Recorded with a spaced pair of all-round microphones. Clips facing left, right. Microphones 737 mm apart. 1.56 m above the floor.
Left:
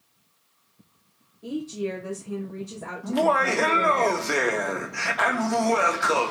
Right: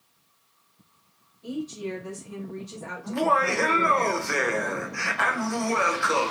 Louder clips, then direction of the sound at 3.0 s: Left 2 dB; 65° left (ahead or behind).